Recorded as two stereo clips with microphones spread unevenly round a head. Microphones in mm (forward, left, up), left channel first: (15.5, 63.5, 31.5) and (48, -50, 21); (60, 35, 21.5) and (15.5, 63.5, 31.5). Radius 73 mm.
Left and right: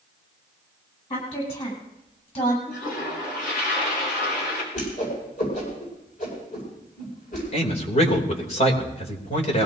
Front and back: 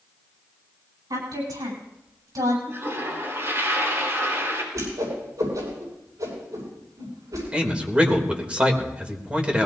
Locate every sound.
1.1 s a woman speaking: 160° left, 9.5 m; by 2.6 s 150° left, 9 m
2.7 s a toilet flushing: 115° left, 5.5 m
4.7 s a whoosh: 140° left, 8 m
7.5 s a man speaking: 80° left, 3 m